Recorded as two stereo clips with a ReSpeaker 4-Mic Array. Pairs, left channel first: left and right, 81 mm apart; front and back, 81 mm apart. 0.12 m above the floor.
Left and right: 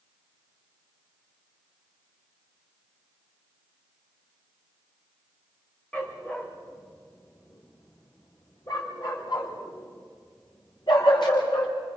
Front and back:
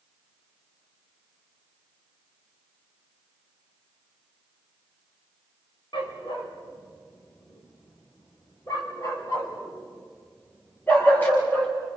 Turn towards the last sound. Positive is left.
turn(degrees=70)